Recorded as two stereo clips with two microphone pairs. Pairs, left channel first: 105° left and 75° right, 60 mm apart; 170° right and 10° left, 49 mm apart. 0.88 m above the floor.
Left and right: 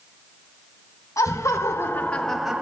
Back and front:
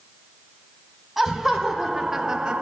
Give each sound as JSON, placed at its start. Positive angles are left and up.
{"t": 1.2, "sound": "laughter", "azimuth_deg": 105, "distance_m": 0.9}